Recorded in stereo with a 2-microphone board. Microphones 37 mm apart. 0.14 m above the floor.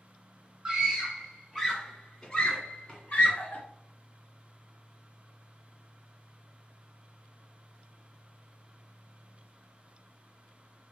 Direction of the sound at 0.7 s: 20° right (ahead or behind).